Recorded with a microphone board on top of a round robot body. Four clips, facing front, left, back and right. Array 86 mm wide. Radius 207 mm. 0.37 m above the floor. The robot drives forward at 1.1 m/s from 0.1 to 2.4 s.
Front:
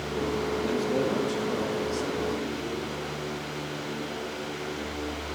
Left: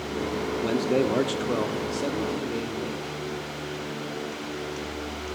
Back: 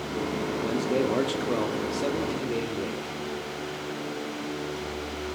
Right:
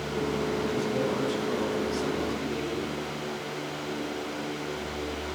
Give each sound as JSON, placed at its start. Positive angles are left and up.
{"t": 0.6, "sound": "a man speaking", "azimuth_deg": 85, "distance_m": 1.4}